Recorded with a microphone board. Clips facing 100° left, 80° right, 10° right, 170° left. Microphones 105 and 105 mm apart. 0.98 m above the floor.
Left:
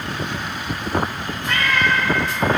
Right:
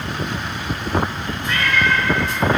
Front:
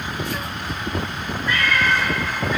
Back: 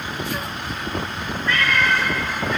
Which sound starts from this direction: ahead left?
A cat meowing, at 1.5 s.